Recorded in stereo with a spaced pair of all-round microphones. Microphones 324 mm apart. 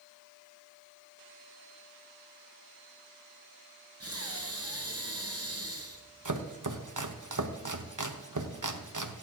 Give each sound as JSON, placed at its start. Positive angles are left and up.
{"t": 4.0, "sound": "breathing", "side_deg": -45, "distance_m": 1.6}
{"t": 6.2, "sound": "chopping", "side_deg": -70, "distance_m": 1.1}